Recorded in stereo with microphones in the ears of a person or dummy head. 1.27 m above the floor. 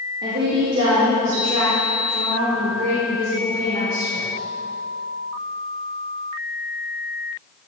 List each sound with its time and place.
0.2 s a woman speaking: 65° right (ahead or behind), 1.8 m; by 4.2 s 80° right, 6 m